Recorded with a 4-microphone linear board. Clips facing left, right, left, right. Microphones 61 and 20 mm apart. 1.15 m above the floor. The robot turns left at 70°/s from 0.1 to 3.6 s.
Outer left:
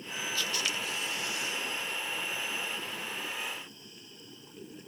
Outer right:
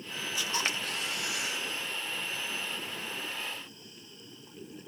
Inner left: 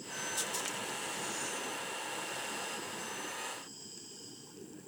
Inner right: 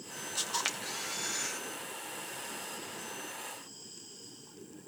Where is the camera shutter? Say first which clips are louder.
Outer right 2 dB, inner right 6 dB; 15° right, 2.0 m; by 1.6 s 105° right, 2.0 m.